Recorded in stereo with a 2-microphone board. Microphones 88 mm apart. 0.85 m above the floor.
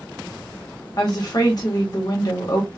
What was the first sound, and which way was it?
A woman speaking, 50° left (ahead or behind).